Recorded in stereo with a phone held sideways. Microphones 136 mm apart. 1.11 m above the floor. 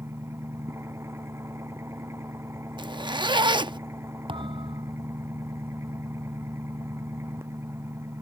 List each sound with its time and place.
0.0 s an engine running: 20° right (ahead or behind)
2.8 s a zipper: 35° right (ahead or behind)
4.3 s a thud: 40° right (ahead or behind)